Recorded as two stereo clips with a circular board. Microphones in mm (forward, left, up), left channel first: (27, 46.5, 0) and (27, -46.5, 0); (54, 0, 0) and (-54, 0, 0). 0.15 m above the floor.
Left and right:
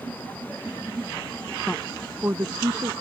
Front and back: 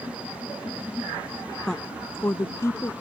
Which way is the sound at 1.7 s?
70° left.